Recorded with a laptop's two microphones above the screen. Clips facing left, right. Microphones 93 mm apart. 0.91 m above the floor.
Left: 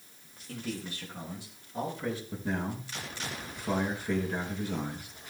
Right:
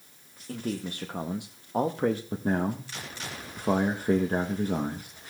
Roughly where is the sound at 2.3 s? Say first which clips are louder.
Right 6 dB; right.